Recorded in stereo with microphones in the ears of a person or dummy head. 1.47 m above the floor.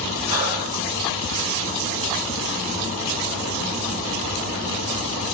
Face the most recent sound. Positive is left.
turn(degrees=-40)  # may be behind; listen again after turning